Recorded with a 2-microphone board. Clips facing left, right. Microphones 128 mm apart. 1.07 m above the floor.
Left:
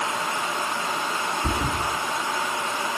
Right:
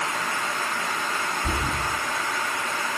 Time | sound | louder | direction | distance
1.4 | a thud | left 2 dB | 35° left (ahead or behind) | 3.5 m